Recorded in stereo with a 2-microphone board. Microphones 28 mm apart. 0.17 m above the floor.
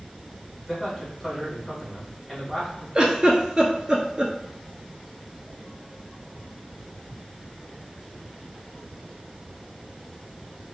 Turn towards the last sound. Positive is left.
turn(degrees=-35)  # may be behind; listen again after turning